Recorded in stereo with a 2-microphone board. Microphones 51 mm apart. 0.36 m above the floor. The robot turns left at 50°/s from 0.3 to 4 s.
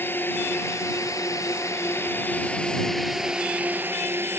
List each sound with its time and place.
0.0 s a drone: 135° left; by 4.4 s 50° right